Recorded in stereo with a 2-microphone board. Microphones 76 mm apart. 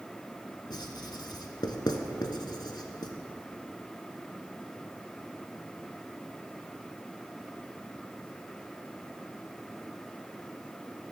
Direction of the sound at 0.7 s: 75° left (ahead or behind).